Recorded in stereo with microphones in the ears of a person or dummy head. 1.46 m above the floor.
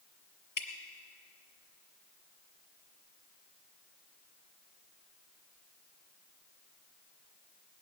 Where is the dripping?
45° left (ahead or behind), 1.8 m.